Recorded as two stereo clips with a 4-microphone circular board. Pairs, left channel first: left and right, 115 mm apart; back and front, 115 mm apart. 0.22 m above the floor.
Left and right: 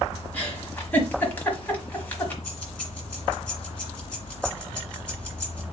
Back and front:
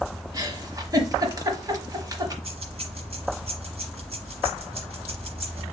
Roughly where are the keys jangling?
Ahead.